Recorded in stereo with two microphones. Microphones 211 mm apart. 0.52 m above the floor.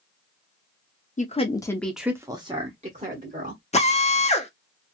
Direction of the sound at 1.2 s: 35° left (ahead or behind).